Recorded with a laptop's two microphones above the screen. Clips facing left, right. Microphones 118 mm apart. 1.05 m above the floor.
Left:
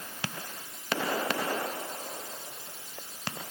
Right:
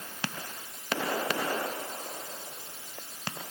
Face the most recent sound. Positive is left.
No sound to turn to.